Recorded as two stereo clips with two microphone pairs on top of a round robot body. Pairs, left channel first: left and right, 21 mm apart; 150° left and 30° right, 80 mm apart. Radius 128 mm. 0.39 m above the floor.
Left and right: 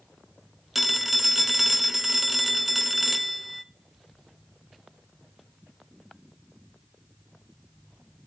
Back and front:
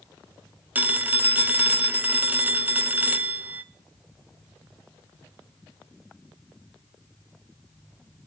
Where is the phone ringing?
40° right, 0.6 m.